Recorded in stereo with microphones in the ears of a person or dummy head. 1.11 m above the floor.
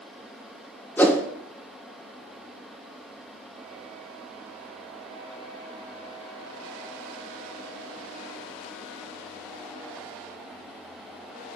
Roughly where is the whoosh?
Centre.